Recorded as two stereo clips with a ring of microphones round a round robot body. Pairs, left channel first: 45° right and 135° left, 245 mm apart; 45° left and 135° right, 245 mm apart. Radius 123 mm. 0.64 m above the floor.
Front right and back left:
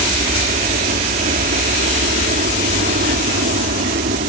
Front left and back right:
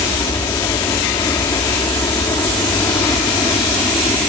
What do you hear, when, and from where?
0.0 s a helicopter: 110° left; by 4.3 s 115° left